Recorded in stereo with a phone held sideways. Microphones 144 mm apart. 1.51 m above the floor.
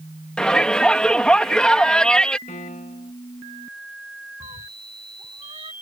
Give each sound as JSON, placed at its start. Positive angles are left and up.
{"t": 0.4, "sound": "a shout", "side_deg": 5}
{"t": 2.5, "sound": "a piano", "side_deg": 65}
{"t": 4.4, "sound": "a cat meowing", "side_deg": -40}